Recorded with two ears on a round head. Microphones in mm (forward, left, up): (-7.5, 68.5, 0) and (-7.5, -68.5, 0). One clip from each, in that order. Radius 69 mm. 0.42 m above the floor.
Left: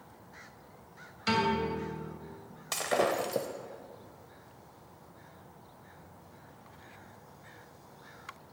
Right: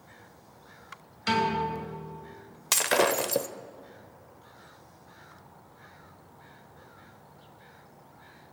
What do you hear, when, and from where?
1.3 s a piano: 15° right (ahead or behind), 2.5 m
2.7 s breaking glass: 60° right (ahead or behind), 0.6 m